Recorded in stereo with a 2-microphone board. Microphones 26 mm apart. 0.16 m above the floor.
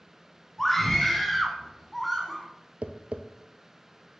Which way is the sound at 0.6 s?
5° left (ahead or behind).